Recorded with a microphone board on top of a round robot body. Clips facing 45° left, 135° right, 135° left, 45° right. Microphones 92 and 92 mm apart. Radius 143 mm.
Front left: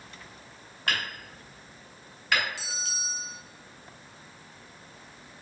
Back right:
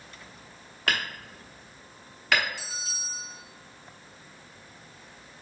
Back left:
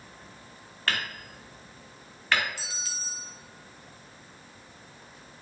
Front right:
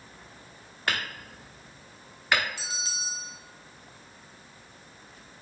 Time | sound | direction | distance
0.9 | hammering | 120° right | 0.8 m
2.6 | a bell | 25° left | 1.3 m